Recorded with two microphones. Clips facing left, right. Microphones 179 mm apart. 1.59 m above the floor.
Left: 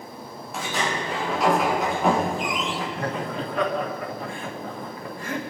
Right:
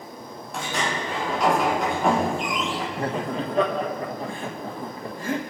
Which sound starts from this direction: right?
Laughter, at 3.0 s.